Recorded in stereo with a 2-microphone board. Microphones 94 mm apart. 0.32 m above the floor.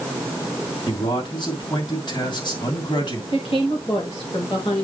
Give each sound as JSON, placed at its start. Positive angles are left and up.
{"t": 0.9, "sound": "a man speaking", "side_deg": 55, "distance_m": 3.0}
{"t": 3.3, "sound": "a woman speaking", "side_deg": 80, "distance_m": 5.0}